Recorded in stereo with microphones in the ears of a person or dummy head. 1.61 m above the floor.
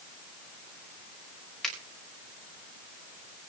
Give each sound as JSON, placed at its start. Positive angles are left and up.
{"t": 1.6, "sound": "a finger snap", "side_deg": 5, "distance_m": 5.5}